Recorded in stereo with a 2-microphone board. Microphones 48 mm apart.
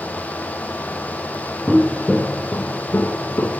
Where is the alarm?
No alarm in this recording.